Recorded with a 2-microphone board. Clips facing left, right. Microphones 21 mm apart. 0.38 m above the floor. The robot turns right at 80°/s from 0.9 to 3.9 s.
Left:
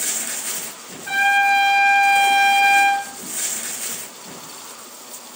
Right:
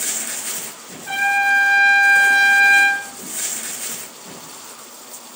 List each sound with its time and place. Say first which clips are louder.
1.1 s a trumpet: left 1 dB; 20° left (ahead or behind), 1.2 m; by 3.1 s 25° right (ahead or behind), 1.2 m